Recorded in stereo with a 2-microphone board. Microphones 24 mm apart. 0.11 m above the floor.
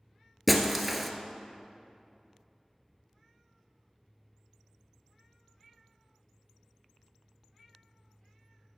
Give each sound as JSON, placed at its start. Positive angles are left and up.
{"t": 0.5, "sound": "breaking glass", "side_deg": 0, "distance_m": 0.9}